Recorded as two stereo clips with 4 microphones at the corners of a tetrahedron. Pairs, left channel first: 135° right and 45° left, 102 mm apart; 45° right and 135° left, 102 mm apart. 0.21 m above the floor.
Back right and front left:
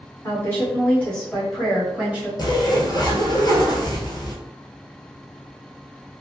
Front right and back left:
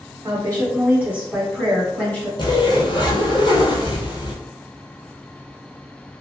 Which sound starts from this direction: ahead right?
Whispering, at 3.8 s.